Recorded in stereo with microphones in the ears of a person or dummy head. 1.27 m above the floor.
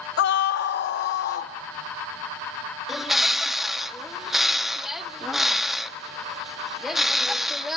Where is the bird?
Centre (ahead or behind), 0.7 m.